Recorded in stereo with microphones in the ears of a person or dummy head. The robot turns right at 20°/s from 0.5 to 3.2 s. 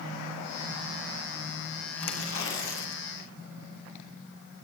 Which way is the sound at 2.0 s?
80° left.